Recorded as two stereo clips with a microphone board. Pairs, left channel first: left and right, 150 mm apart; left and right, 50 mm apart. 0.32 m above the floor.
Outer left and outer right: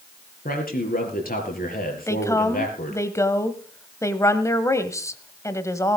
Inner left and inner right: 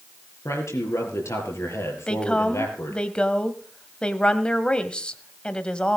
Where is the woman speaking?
20° left (ahead or behind), 1.4 m.